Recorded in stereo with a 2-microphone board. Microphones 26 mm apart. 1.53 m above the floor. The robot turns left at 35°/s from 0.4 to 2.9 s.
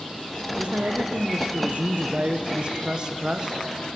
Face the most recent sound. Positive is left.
turn(degrees=-150)